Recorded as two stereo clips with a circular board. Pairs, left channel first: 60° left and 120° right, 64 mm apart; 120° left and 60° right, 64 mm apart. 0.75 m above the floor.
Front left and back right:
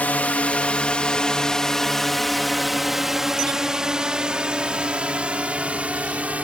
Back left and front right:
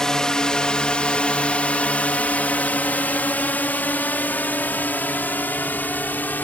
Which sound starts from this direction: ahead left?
A drone, at 0.0 s.